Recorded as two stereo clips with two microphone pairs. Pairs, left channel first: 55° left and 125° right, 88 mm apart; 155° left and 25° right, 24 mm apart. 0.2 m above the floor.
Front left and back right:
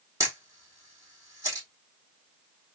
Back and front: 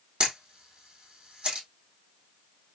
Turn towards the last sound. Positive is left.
turn(degrees=-70)